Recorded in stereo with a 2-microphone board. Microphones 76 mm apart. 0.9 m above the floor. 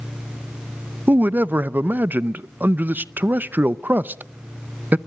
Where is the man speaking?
25° right (ahead or behind), 0.6 m.